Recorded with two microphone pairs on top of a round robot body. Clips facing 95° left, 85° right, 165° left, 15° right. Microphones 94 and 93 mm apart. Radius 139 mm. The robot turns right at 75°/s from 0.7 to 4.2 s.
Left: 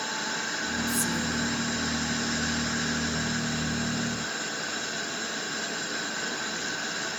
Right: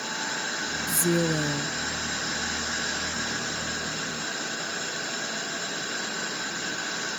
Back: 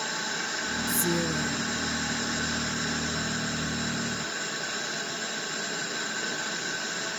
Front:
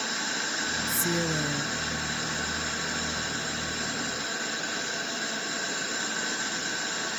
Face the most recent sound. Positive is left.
turn(degrees=120)